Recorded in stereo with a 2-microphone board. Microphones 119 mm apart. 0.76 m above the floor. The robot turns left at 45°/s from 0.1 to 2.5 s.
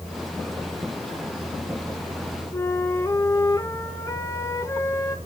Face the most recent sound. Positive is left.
turn(degrees=25)  # may be behind; listen again after turning